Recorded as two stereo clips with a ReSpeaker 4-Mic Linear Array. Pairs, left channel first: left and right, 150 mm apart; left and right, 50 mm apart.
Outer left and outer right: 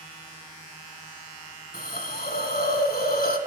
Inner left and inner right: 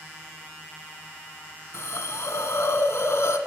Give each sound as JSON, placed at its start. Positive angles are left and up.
{"t": 1.7, "sound": "a hiss", "side_deg": 75, "distance_m": 1.3}